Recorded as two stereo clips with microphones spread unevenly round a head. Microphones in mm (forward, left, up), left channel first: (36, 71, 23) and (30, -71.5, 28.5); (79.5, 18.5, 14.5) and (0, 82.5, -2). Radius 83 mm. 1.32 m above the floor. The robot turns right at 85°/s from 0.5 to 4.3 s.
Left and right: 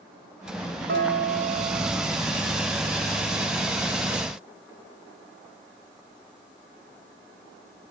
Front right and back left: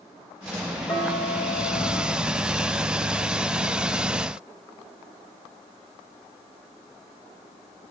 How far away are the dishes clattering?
About 3.5 m.